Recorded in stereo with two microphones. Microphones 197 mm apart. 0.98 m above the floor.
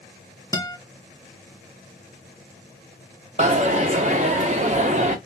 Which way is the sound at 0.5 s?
20° left (ahead or behind).